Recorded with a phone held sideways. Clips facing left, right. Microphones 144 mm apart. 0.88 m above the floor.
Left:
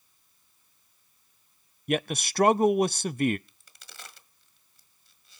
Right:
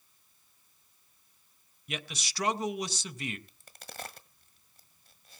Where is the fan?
I don't hear a fan.